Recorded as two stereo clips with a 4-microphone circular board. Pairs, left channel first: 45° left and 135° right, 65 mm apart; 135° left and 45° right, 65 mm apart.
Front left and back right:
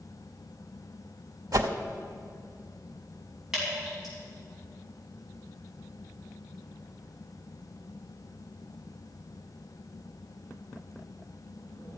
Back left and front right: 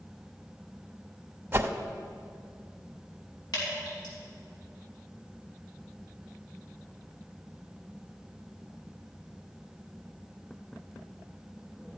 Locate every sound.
1.5 s a whoosh: 105° right, 0.8 m
3.5 s dripping: 140° left, 5.5 m